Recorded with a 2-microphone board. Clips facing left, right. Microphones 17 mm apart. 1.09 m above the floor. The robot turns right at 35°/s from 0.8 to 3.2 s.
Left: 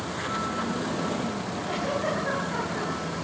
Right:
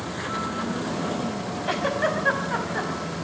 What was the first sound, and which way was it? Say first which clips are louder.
A giggle: right 4 dB; 85° right.